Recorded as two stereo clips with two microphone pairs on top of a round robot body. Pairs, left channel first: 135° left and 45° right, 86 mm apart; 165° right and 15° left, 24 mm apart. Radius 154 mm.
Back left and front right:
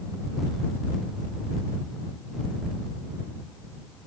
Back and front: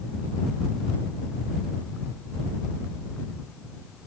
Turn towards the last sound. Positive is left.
No sound to turn to.